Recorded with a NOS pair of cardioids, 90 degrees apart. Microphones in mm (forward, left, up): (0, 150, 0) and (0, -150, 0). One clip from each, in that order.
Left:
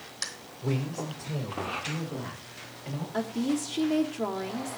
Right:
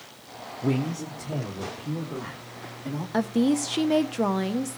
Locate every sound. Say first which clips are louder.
0.6 s a man speaking: right 4 dB; 40° right, 1.1 m; by 3.0 s 50° right, 4 m
3.1 s a woman speaking: right 6 dB; 60° right, 1.1 m